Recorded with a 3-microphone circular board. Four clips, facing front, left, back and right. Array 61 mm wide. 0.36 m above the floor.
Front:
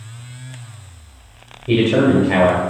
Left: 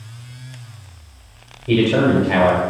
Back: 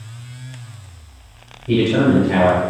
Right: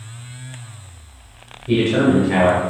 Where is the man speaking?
20° left, 1.6 m.